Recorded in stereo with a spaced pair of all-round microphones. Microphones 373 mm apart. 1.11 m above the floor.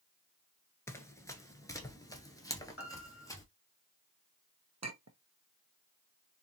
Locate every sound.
0.9 s running footsteps: 5° left (ahead or behind), 1.1 m; by 3.4 s 10° left (ahead or behind), 1.5 m
2.8 s a piano: 35° left (ahead or behind), 2.5 m
4.8 s a clink: 45° right (ahead or behind), 0.6 m